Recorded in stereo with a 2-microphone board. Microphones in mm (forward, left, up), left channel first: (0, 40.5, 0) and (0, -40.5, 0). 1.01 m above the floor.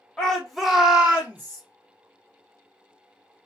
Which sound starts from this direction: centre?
A shout, at 0.2 s.